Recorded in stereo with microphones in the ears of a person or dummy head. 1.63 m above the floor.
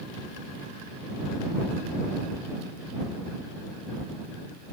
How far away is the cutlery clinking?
I don't hear cutlery clinking.